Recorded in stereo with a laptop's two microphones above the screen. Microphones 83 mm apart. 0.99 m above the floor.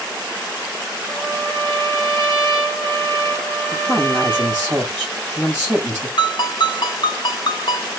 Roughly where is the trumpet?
Centre.